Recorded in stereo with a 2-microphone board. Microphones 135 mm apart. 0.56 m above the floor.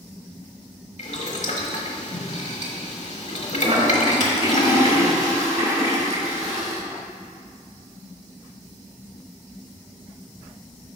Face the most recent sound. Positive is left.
turn(degrees=-50)  # may be behind; listen again after turning